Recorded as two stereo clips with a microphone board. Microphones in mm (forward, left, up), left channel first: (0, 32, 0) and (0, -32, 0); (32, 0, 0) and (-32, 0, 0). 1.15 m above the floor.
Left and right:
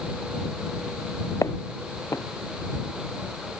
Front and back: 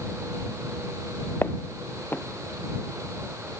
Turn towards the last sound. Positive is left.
turn(degrees=55)